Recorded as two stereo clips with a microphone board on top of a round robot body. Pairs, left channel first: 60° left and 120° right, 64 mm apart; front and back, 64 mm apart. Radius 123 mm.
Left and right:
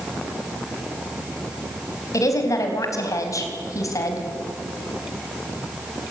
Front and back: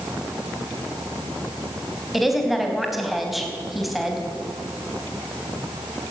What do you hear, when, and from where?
2.1 s a woman speaking: 90° left, 4 m